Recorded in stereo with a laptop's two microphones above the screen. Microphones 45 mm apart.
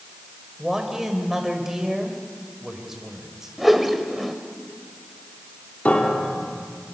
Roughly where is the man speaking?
Centre.